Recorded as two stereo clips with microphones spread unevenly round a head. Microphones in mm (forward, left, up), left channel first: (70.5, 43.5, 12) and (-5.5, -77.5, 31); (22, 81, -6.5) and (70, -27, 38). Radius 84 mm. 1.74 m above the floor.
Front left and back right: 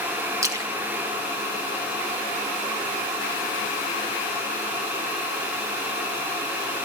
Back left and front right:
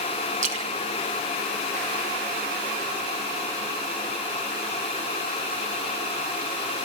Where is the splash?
55° right, 2.5 m.